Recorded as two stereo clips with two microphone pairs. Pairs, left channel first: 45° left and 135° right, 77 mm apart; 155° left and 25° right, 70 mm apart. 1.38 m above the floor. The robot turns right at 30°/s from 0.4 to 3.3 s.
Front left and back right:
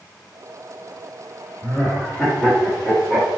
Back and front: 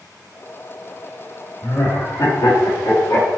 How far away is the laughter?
About 1.7 m.